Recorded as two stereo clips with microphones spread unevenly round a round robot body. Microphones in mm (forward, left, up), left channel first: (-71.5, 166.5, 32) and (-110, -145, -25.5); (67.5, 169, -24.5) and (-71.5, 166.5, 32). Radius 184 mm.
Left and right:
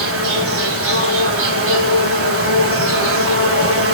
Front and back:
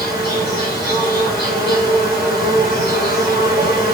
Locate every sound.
0.0 s an insect: 145° right, 1.2 m